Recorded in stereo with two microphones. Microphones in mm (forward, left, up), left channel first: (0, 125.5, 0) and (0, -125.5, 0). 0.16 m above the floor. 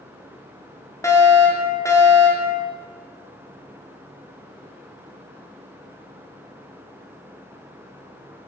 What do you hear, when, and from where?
1.0 s a fire alarm: 10° left (ahead or behind), 4.5 m